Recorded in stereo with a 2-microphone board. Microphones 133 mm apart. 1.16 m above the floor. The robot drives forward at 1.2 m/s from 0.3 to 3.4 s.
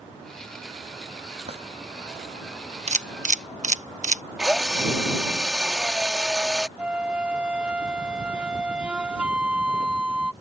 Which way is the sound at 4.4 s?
5° right (ahead or behind).